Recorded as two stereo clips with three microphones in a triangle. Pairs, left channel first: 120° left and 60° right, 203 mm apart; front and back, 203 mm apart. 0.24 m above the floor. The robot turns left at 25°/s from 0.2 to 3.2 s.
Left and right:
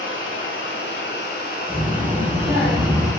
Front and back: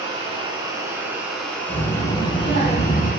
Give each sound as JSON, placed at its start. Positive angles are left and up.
{"t": 0.0, "sound": "running water", "azimuth_deg": 120, "distance_m": 0.7}
{"t": 1.7, "sound": "a child speaking", "azimuth_deg": 25, "distance_m": 0.8}